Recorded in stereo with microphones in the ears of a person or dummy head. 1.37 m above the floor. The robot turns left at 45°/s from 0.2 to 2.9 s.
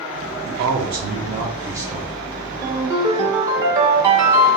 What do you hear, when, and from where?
0.5 s a man speaking: 105° right, 0.8 m; by 2.1 s straight behind, 0.8 m
2.6 s a ringtone: 15° right (ahead or behind), 0.8 m; by 4.6 s 25° right (ahead or behind), 0.8 m